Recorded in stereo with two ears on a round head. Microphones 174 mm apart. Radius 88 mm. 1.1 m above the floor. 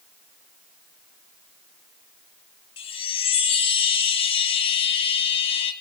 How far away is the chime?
About 0.8 m.